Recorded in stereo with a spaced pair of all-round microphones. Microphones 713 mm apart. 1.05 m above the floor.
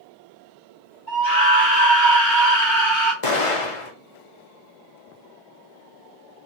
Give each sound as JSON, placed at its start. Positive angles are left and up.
{"t": 1.1, "sound": "a scream", "side_deg": 75, "distance_m": 2.5}
{"t": 3.2, "sound": "an explosion", "side_deg": 45, "distance_m": 0.7}